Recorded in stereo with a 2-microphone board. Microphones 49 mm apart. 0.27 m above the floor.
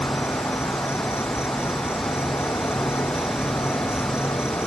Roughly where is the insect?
Left.